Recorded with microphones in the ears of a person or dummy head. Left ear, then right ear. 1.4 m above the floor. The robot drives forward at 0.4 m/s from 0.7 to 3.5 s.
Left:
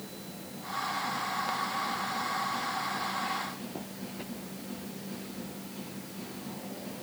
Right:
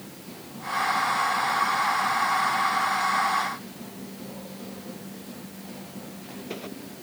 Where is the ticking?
I don't hear ticking.